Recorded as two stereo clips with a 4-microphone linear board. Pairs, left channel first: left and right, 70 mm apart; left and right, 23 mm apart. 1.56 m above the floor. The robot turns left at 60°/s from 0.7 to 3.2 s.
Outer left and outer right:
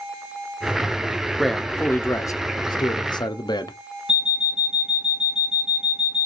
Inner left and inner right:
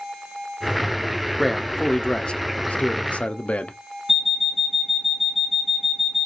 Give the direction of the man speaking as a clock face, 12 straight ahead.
6 o'clock.